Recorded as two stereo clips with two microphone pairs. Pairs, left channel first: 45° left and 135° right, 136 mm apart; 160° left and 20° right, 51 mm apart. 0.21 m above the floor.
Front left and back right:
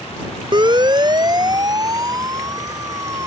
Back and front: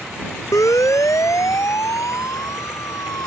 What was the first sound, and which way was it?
A siren, 165° left.